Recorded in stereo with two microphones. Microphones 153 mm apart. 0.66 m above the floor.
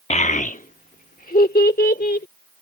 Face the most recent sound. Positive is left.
turn(degrees=80)